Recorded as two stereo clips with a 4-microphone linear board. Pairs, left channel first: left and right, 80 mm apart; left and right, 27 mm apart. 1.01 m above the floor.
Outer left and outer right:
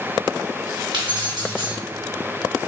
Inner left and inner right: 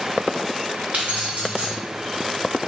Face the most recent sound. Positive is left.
turn(degrees=-75)  # may be behind; listen again after turning